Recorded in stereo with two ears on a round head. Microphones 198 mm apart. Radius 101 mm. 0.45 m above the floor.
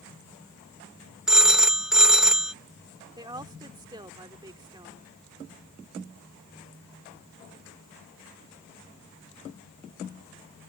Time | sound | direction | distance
1.3 | a phone ringing | 5° right (ahead or behind) | ?
3.2 | a woman speaking | 20° right (ahead or behind) | ?